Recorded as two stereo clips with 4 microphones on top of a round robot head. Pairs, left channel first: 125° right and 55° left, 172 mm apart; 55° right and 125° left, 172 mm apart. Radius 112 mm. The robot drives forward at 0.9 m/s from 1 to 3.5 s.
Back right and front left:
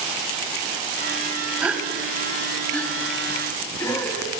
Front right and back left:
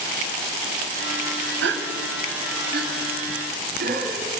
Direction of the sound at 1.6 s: 140° left.